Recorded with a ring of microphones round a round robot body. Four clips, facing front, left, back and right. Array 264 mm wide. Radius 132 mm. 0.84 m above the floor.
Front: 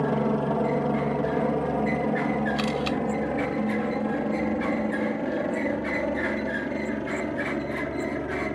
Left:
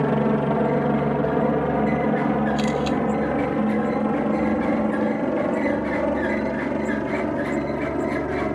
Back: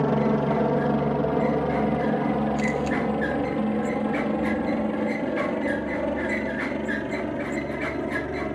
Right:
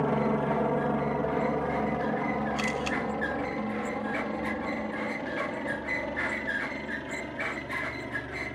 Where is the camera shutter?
10° left.